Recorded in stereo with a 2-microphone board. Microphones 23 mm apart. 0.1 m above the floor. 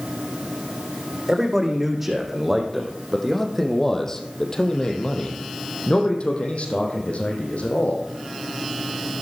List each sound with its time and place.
1.3 s a man speaking: 15° right (ahead or behind), 4.5 m; by 8.0 s 75° left (ahead or behind), 4 m